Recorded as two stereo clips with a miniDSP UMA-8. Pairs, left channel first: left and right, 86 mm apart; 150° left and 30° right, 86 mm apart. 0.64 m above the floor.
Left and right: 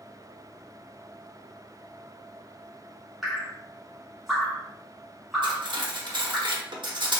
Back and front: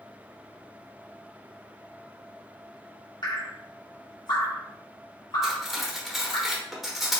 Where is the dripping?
175° right, 1.7 m.